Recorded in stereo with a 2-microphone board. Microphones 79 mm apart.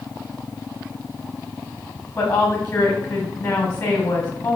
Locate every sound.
2.2 s a woman speaking: 30° left (ahead or behind), 1.3 m